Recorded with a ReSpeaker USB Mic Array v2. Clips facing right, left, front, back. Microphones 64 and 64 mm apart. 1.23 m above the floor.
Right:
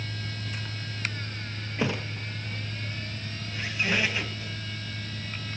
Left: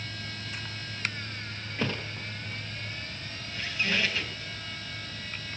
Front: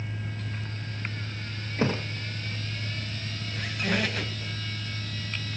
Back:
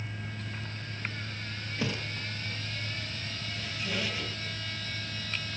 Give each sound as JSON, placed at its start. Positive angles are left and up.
{"t": 1.8, "sound": "a thud", "azimuth_deg": -20, "distance_m": 0.8}
{"t": 3.5, "sound": "a squeak", "azimuth_deg": -20, "distance_m": 2.5}